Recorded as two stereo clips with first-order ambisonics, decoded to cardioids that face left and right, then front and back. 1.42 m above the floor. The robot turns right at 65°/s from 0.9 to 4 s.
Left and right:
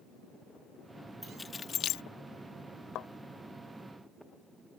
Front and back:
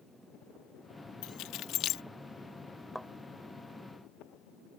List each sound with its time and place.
1.2 s keys jangling: straight ahead; by 2.0 s 55° left
3.0 s a thud: 90° left; by 3.1 s 100° left